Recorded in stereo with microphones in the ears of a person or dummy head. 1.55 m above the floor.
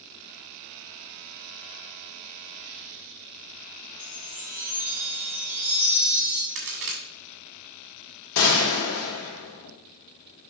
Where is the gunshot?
65° left (ahead or behind), 1.4 m.